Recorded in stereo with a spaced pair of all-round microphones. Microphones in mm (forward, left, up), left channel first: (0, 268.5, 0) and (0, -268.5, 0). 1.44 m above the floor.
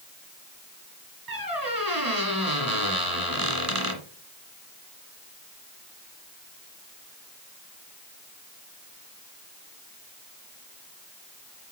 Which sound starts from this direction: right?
A squeak, at 1.3 s.